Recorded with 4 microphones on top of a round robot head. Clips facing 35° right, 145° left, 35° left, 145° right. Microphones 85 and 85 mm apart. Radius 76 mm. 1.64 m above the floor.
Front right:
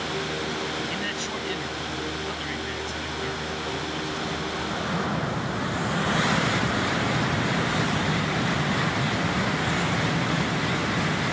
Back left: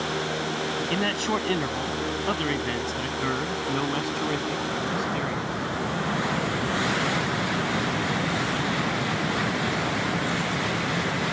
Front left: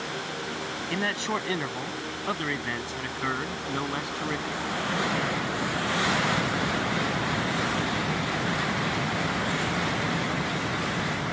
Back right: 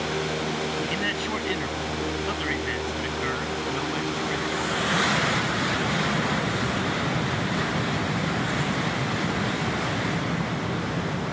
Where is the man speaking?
100° left; by 5.5 s 110° left.